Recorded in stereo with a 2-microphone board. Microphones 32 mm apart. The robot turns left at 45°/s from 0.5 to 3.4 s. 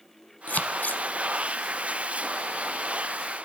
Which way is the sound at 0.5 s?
55° left (ahead or behind).